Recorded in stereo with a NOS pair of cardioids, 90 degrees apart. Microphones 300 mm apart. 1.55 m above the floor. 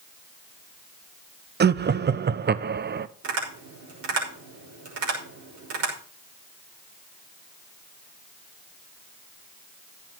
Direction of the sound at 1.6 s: 35° right.